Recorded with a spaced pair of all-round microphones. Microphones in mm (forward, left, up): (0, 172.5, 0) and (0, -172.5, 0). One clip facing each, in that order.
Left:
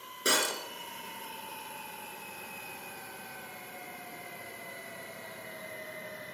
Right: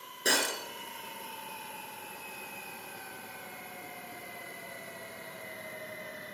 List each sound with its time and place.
0.2 s breaking glass: 10° left (ahead or behind), 2 m